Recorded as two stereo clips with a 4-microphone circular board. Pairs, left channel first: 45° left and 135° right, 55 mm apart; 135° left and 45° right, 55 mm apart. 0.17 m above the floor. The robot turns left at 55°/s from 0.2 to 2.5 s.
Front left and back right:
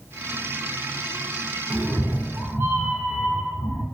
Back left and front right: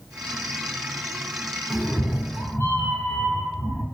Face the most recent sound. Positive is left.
turn(degrees=180)